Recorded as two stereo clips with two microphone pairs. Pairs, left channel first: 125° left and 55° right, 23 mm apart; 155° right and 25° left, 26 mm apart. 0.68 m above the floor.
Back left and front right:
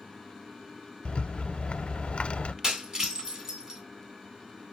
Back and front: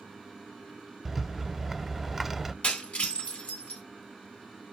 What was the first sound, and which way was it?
A rattle, 105° left.